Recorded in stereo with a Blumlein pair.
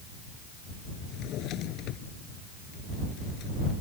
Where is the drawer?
35° left.